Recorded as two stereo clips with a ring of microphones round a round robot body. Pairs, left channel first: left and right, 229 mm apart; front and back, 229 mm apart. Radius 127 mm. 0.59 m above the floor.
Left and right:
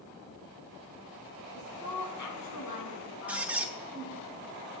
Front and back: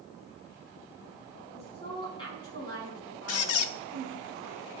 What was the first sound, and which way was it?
A woman speaking, 65° left.